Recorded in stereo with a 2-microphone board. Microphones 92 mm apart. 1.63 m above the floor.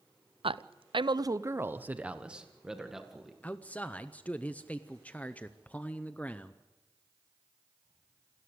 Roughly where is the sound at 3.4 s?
Centre.